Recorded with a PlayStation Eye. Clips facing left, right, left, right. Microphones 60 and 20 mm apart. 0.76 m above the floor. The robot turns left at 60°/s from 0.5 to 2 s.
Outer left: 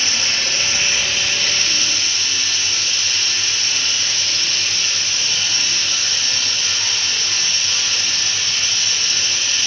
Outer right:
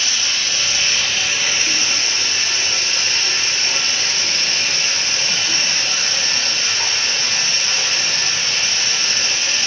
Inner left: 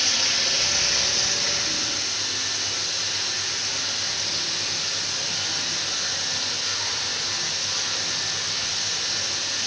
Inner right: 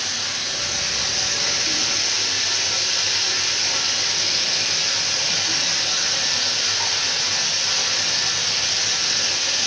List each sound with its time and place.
0.0 s running water: 40° left, 3.5 m; by 9.7 s 50° right, 3.5 m